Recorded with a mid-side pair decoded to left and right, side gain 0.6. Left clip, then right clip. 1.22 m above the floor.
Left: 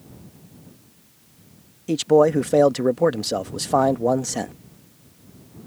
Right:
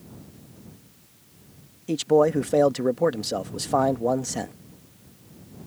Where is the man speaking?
15° left.